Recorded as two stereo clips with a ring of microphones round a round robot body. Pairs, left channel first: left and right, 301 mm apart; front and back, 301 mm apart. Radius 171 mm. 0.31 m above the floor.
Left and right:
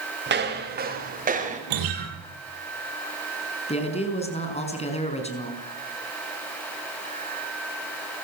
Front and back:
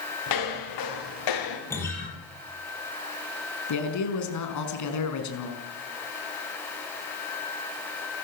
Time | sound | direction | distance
0.3 | footsteps | 35° right | 7 m
1.7 | a guitar | 85° right | 6.5 m
3.7 | a man speaking | 20° left | 5 m